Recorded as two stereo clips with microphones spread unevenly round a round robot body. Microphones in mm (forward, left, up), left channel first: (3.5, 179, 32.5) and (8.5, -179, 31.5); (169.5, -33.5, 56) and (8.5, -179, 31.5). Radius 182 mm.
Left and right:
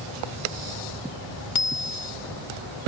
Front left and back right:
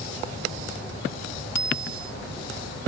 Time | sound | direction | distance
1.6 | a bicycle bell | 55° left | ?